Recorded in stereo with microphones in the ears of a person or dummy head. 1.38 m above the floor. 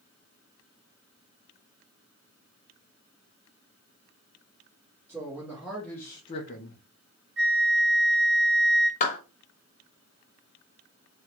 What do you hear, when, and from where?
5.1 s a man speaking: 15° right (ahead or behind), 1.4 m; by 6.8 s 55° left (ahead or behind), 0.7 m
7.4 s a flute: 60° right (ahead or behind), 1.1 m
9.0 s a clap: 35° left (ahead or behind), 0.8 m